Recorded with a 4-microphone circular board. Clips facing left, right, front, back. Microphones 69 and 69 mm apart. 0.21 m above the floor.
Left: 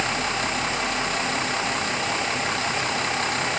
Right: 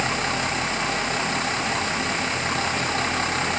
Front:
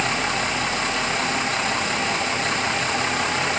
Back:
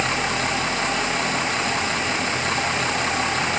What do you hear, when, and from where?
Only background noise.